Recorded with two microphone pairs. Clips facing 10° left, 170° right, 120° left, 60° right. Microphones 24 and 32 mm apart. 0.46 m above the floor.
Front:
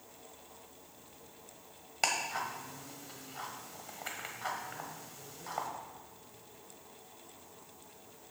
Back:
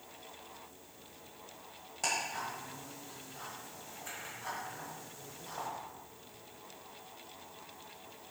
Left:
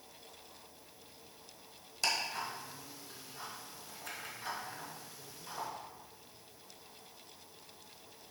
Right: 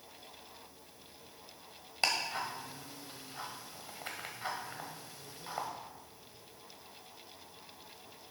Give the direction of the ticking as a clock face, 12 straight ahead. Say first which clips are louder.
Front 2 dB, right 2 dB; 12 o'clock.